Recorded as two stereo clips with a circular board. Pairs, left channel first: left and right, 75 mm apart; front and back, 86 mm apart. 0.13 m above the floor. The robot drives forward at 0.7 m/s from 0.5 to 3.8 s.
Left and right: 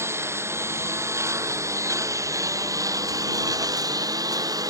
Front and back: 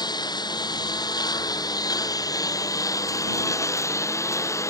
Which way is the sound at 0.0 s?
35° right.